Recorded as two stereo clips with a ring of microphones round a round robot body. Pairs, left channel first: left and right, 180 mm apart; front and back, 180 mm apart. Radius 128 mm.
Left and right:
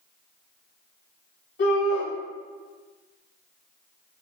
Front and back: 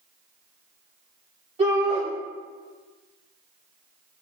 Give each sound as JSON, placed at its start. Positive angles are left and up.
{"t": 1.6, "sound": "a shout", "azimuth_deg": 130, "distance_m": 2.5}